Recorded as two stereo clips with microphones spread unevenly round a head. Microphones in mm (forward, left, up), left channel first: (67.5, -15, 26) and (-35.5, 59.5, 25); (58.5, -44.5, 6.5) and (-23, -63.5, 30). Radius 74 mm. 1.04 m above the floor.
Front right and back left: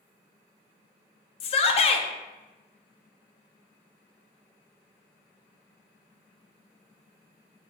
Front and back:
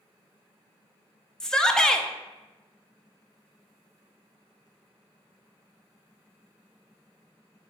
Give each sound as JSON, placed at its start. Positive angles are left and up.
{"t": 1.4, "sound": "a shout", "azimuth_deg": -55, "distance_m": 0.6}